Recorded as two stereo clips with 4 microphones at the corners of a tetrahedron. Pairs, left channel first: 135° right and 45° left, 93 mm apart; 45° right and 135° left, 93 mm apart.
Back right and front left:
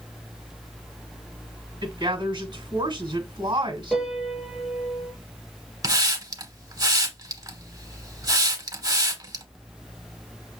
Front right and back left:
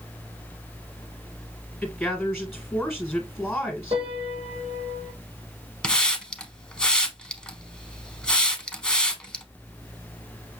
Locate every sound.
1.8 s a woman speaking: 45° left, 1.8 m
3.9 s a piano: 135° left, 1.7 m
5.8 s a hiss: 30° left, 0.8 m